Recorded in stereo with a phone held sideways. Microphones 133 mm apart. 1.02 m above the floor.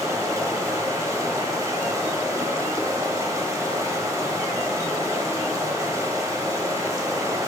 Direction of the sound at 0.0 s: 25° right (ahead or behind).